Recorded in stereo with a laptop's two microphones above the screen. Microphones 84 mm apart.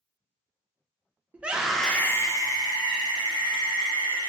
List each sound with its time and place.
1.3 s a scream: 15° right (ahead or behind), 0.7 m; by 4.3 s 50° left (ahead or behind), 1.8 m